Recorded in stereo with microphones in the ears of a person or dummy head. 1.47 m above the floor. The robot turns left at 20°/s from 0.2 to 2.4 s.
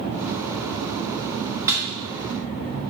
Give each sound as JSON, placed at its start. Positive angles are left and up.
{"t": 1.7, "sound": "a snare drum", "side_deg": -20, "distance_m": 2.5}